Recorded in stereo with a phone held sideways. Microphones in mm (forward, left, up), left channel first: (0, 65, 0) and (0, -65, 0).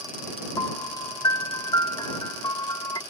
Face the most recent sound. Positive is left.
turn(degrees=30)  # may be behind; listen again after turning